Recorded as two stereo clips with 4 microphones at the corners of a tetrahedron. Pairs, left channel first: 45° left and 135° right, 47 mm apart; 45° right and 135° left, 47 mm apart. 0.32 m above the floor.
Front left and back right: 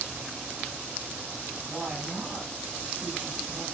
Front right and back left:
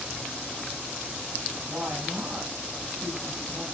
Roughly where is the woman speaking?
Behind left.